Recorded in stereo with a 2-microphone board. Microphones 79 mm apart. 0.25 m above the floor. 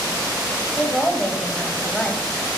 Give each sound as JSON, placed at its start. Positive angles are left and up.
{"t": 0.8, "sound": "a woman speaking", "side_deg": 10, "distance_m": 1.0}